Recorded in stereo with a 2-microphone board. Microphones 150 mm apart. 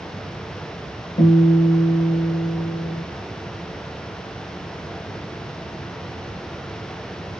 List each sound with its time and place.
1.2 s a guitar: 45° left (ahead or behind), 0.9 m